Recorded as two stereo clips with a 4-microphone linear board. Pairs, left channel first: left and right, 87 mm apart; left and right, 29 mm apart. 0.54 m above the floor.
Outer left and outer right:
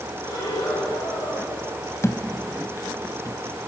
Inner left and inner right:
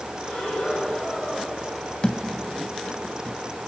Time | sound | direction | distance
0.2 | breathing | 60° left (ahead or behind) | 8.5 m
2.0 | a thud | 35° left (ahead or behind) | 1.3 m